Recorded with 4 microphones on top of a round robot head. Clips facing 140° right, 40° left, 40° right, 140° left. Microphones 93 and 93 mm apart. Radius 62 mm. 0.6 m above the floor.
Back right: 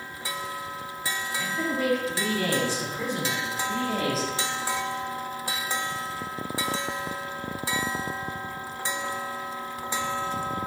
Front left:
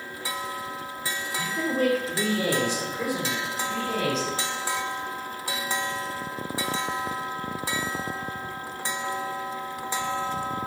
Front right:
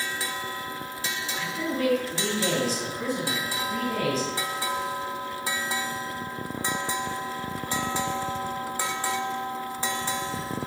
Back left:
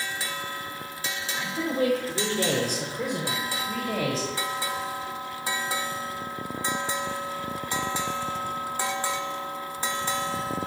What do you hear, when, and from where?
1.4 s a man speaking: 65° left, 2.0 m; by 4.3 s 135° left, 3.5 m